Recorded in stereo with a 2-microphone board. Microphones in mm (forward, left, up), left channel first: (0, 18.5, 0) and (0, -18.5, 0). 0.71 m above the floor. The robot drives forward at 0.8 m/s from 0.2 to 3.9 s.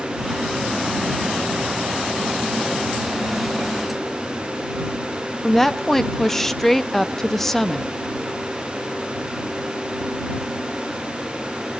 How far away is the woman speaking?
About 0.5 m.